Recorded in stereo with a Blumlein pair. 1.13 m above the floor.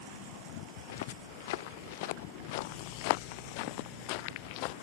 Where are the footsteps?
55° left; by 4.7 s 45° left.